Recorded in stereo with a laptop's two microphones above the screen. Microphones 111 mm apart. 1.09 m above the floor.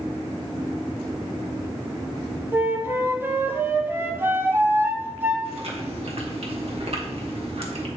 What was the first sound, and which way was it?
A flute, 20° right (ahead or behind).